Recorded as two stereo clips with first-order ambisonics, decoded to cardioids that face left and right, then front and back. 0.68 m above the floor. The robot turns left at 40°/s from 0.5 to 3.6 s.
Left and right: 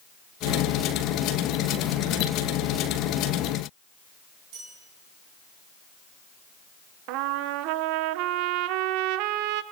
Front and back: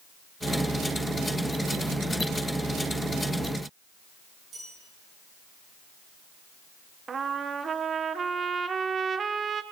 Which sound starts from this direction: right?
A trumpet, at 7.1 s.